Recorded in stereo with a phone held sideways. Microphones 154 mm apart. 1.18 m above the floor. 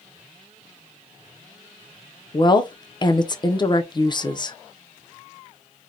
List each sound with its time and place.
2.3 s a woman speaking: 30° left (ahead or behind), 0.5 m